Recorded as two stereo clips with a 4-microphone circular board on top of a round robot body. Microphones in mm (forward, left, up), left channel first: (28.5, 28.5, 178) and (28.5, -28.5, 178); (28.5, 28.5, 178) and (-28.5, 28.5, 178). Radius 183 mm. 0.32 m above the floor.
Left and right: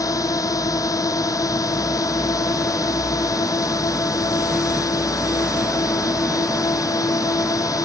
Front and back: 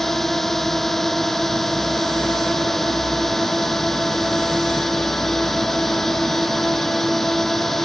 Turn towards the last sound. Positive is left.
turn(degrees=85)